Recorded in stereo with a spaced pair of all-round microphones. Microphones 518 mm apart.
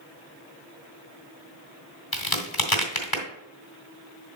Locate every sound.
2.1 s a crack: 40° left (ahead or behind), 1.5 m